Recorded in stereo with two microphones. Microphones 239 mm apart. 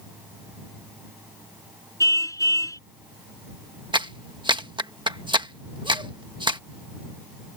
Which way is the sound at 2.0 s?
15° left (ahead or behind).